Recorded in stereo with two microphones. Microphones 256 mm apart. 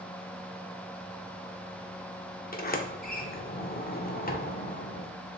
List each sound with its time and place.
2.5 s a sliding door: 35° left (ahead or behind), 0.6 m